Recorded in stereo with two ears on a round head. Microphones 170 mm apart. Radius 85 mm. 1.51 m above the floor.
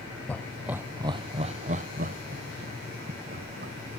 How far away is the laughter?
About 0.7 m.